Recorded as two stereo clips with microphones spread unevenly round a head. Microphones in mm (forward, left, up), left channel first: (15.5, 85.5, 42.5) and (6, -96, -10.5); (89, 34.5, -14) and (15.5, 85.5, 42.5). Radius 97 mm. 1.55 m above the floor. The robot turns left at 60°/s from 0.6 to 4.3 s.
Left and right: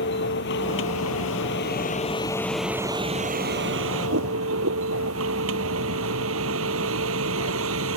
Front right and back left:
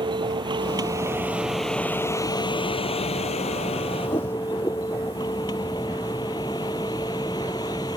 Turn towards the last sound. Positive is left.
turn(degrees=-105)